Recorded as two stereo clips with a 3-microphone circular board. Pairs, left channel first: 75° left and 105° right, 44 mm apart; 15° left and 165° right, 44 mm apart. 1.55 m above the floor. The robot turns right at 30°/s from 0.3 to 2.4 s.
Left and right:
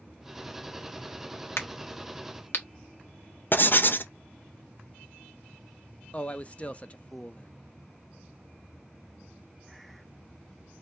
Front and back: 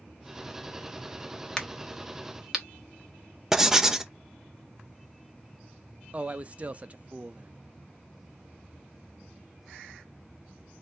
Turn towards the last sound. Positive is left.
turn(degrees=135)